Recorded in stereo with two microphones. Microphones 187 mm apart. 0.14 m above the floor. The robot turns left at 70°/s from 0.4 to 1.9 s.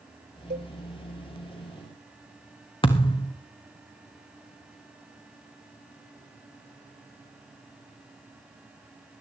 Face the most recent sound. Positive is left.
turn(degrees=30)  # may be behind; listen again after turning